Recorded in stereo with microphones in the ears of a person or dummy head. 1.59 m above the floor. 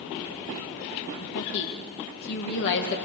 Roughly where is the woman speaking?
Left.